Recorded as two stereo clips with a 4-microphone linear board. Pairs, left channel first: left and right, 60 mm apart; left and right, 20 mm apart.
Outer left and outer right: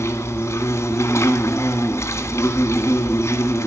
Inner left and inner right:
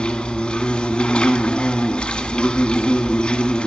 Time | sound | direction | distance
0.0 | an insect | 55° left (ahead or behind) | 1.6 m